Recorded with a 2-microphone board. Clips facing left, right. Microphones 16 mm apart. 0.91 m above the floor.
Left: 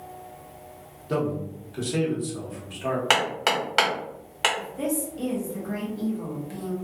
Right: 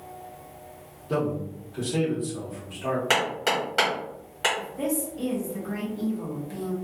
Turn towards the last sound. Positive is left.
turn(degrees=15)  # may be behind; listen again after turning